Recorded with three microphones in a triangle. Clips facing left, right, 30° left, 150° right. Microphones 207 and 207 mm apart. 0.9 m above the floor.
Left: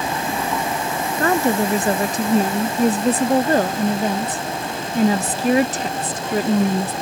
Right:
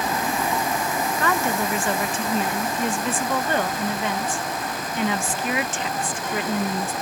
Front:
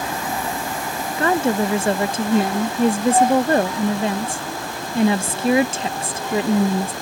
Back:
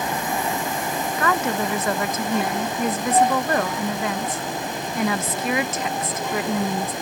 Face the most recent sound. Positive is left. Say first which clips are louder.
# left 8 dB, front 6 dB
turn(degrees=70)